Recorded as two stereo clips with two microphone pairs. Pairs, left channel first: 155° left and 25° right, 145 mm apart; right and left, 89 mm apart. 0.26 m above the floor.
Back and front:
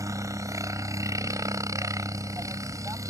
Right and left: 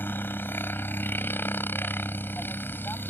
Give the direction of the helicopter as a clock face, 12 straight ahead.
2 o'clock.